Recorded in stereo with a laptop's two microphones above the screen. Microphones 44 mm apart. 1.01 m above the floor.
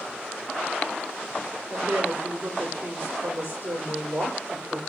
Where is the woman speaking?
60° right (ahead or behind), 4.5 m.